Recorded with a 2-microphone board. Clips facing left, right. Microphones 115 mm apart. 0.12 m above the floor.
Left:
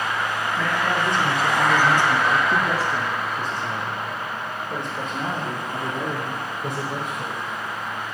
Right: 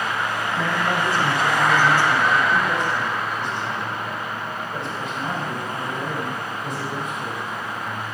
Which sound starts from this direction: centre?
A man speaking, at 0.6 s.